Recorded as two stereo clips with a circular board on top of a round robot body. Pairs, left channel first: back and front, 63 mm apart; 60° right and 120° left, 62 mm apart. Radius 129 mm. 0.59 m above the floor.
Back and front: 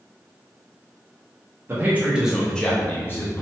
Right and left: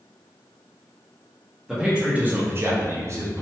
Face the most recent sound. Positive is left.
turn(degrees=145)